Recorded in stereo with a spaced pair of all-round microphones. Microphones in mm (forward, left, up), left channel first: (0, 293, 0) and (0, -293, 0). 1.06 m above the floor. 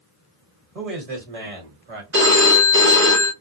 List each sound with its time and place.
0.8 s a man speaking: 80° right, 1.5 m; by 2.0 s 60° right (ahead or behind), 1.1 m
2.1 s a phone ringing: 20° right (ahead or behind), 0.8 m